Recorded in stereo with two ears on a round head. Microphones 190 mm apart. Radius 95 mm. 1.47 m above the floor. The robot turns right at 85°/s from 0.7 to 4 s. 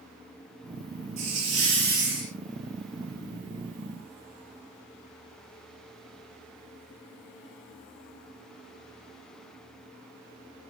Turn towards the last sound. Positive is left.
turn(degrees=130)